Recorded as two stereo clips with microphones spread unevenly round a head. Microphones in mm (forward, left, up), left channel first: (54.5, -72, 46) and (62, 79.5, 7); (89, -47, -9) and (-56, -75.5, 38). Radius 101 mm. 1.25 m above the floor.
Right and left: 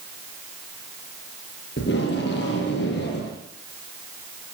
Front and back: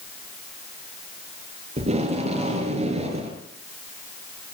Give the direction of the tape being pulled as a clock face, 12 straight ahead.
4 o'clock.